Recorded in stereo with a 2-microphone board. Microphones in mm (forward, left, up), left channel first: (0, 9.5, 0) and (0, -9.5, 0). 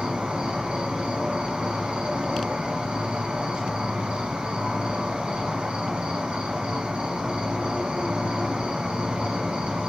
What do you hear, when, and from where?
0.0 s an insect: 60° right (ahead or behind), 1.5 m